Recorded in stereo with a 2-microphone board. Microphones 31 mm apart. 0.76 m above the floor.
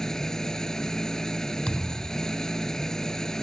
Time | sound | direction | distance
0.0 | an engine running | 20° left (ahead or behind) | ?
1.7 | a thud | 40° left (ahead or behind) | ?